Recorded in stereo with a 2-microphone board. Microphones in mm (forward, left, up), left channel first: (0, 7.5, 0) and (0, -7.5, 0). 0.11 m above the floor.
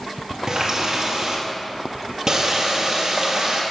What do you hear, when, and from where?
0.5 s a running tap: 50° right (ahead or behind), 1.9 m